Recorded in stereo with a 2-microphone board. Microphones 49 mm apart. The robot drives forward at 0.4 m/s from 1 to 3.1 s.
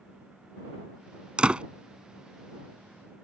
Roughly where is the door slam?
Right.